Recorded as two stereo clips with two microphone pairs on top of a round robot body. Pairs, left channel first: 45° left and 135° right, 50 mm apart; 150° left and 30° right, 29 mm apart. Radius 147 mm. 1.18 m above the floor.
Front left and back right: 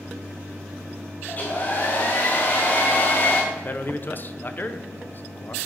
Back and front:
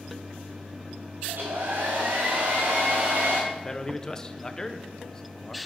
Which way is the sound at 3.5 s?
85° left.